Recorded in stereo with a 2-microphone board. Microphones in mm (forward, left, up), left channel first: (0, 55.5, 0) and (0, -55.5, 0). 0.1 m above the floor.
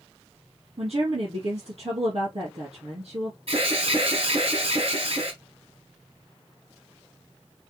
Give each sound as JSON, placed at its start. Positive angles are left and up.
{"t": 0.8, "sound": "a woman speaking", "side_deg": -65, "distance_m": 3.0}
{"t": 3.5, "sound": "an alarm", "side_deg": -60, "distance_m": 4.0}